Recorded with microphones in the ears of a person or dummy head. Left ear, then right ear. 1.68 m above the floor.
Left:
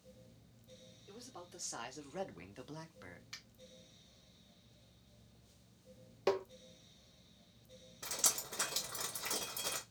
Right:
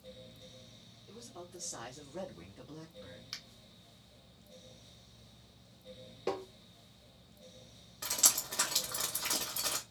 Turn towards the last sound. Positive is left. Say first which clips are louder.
# right 6 dB
turn(degrees=-20)  # may be behind; listen again after turning